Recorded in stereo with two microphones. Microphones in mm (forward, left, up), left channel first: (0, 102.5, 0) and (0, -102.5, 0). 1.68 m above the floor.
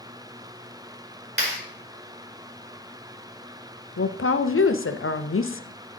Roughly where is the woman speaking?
Left.